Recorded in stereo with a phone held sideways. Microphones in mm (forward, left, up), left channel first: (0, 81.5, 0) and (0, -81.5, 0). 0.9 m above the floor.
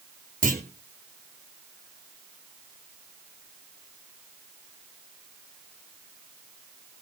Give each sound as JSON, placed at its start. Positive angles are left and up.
{"t": 0.4, "sound": "a clunk", "side_deg": -55, "distance_m": 4.0}